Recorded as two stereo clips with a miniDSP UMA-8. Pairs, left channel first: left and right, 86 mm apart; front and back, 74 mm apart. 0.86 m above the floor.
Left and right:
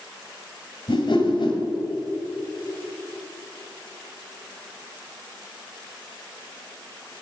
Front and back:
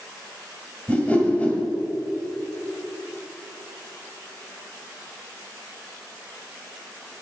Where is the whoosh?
70° left, 1.5 m.